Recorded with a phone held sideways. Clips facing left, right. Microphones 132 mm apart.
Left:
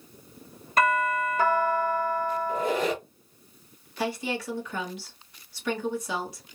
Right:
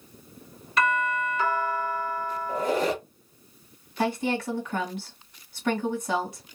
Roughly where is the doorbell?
Left.